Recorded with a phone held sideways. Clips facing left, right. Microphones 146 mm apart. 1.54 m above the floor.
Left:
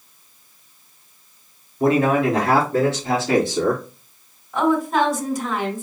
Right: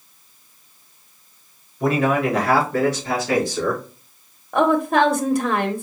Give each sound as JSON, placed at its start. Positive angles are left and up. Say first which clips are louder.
{"t": 1.8, "sound": "a man speaking", "louder": "left 2 dB", "side_deg": 30, "distance_m": 3.0}
{"t": 4.5, "sound": "a woman speaking", "louder": "right 2 dB", "side_deg": -65, "distance_m": 1.1}